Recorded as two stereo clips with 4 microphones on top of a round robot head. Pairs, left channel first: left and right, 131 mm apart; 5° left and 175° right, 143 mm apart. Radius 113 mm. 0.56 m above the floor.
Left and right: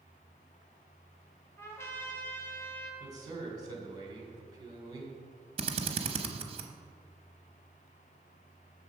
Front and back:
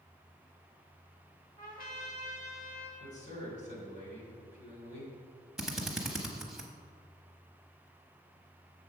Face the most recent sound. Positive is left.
turn(degrees=-90)